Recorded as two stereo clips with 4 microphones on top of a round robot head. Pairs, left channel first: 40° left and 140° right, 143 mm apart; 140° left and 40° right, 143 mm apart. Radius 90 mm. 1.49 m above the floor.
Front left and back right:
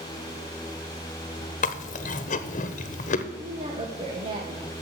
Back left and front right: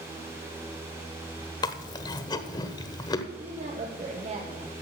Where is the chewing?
75° left, 1.1 m.